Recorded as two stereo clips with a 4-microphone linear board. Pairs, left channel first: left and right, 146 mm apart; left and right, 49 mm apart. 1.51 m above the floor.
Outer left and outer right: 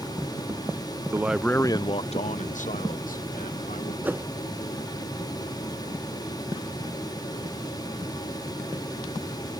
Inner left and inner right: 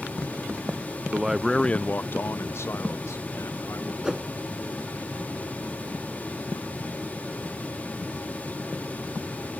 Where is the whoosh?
10° right (ahead or behind).